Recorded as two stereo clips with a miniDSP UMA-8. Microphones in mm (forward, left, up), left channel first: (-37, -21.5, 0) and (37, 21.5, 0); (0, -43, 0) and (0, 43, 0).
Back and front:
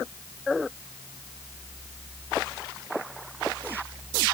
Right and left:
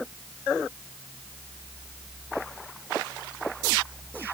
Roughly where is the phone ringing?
I don't hear a phone ringing.